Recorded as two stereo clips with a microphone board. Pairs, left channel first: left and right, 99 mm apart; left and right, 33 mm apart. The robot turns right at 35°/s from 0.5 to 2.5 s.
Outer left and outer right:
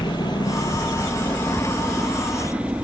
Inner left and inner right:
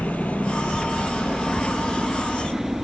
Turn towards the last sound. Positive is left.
turn(degrees=-165)